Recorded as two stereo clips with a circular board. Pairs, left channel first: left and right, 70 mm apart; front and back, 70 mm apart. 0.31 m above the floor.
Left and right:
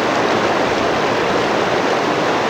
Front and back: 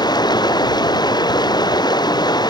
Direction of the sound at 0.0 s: Straight ahead.